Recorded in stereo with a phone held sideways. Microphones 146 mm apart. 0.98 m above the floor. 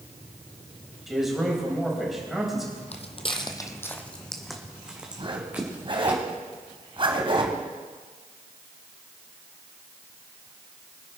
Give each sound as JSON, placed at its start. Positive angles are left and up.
{"t": 1.1, "sound": "a man speaking", "side_deg": 0, "distance_m": 4.5}
{"t": 2.9, "sound": "footsteps", "side_deg": 45, "distance_m": 1.4}
{"t": 5.2, "sound": "a zipper", "side_deg": -35, "distance_m": 2.0}